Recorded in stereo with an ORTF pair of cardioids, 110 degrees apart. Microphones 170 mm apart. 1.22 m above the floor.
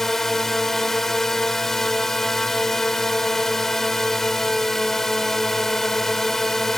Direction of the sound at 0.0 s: 5° left.